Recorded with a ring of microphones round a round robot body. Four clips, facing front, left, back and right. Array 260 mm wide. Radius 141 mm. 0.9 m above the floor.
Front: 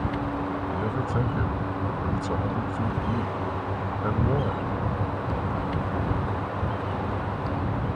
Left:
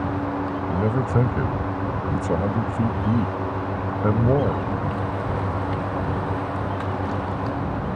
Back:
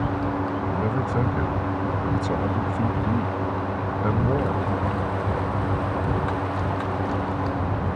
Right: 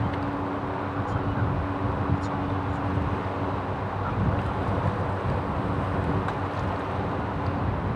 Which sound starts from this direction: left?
A man speaking, at 0.7 s.